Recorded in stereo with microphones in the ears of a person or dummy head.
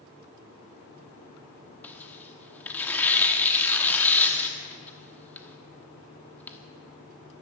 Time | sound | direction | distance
1.8 | tearing paper | 5° left (ahead or behind) | 1.0 m